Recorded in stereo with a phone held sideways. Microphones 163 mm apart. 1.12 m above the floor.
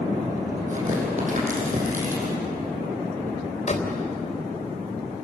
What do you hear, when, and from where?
0.7 s tearing paper: 50° right (ahead or behind), 6.5 m
3.7 s a door slam: 45° left (ahead or behind), 3.5 m